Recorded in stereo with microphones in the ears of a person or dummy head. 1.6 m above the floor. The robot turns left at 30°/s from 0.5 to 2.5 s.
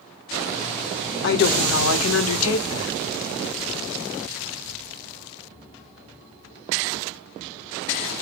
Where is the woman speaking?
115° left, 0.8 m; by 2.9 s 75° left, 0.8 m.